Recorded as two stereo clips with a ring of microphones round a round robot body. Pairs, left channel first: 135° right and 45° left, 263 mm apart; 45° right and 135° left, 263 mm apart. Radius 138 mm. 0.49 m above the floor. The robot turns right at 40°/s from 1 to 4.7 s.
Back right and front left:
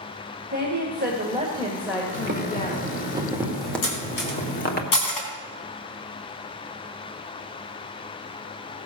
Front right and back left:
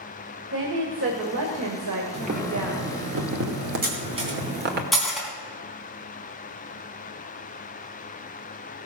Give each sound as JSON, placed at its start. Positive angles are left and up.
{"t": 0.5, "sound": "a woman speaking", "azimuth_deg": 95, "distance_m": 1.8}
{"t": 2.1, "sound": "boiling", "azimuth_deg": 75, "distance_m": 1.9}
{"t": 3.8, "sound": "cutlery clinking", "azimuth_deg": -170, "distance_m": 3.5}